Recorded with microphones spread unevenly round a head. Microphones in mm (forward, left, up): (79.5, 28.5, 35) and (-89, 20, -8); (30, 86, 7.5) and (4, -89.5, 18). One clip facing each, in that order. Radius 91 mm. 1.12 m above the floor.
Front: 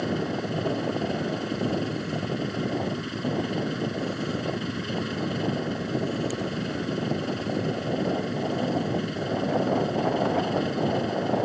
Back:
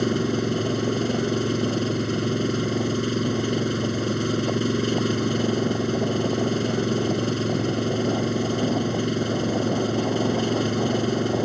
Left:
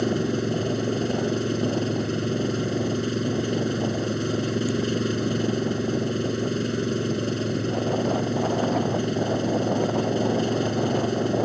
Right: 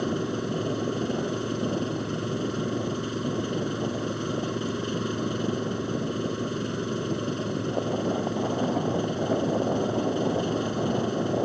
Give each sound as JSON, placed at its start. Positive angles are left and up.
{"t": 0.0, "sound": "an engine running", "azimuth_deg": 150}